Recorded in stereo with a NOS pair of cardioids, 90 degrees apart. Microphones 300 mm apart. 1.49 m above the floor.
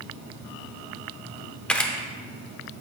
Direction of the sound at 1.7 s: 5° left.